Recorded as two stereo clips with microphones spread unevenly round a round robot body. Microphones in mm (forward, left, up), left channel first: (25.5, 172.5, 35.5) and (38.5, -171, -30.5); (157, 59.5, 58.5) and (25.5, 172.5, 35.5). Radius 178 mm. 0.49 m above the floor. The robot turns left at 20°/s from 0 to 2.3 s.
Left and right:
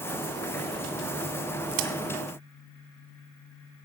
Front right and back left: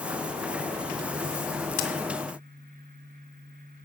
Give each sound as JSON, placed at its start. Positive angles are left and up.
{"t": 1.7, "sound": "a crack", "azimuth_deg": -50, "distance_m": 1.9}